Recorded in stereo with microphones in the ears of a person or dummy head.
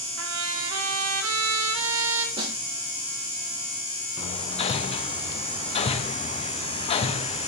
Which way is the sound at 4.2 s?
30° left (ahead or behind).